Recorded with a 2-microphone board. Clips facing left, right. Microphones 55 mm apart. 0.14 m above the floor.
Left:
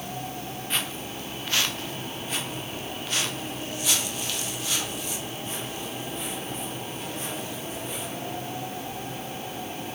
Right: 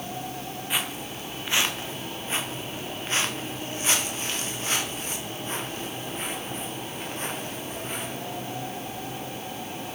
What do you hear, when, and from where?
0.7 s footsteps: 10° right (ahead or behind), 3 m; by 8.1 s 45° right (ahead or behind), 9.5 m